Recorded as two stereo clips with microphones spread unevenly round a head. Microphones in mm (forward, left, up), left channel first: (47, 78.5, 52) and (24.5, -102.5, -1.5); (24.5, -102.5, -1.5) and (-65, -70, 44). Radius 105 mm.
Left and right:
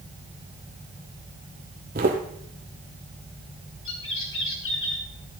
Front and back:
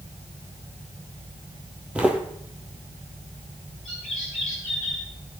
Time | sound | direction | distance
1.9 | footsteps | 150° right | 1.5 m
3.9 | a bird | 75° left | 3.5 m